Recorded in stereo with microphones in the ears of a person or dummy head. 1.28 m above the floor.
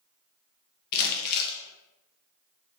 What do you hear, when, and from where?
0.9 s crumpling: 55° left (ahead or behind), 1.0 m